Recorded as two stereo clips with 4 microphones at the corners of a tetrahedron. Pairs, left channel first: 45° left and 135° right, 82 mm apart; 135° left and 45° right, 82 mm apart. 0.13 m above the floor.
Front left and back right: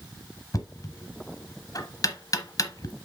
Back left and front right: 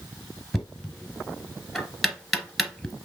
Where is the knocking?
45° left, 1.4 m.